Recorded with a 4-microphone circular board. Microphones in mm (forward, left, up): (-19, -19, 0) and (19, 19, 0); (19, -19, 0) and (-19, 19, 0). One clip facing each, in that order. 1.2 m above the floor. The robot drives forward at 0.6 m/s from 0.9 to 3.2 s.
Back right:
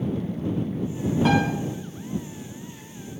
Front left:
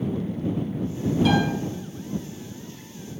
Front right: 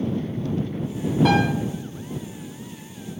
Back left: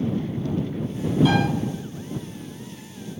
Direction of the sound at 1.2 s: 80° right.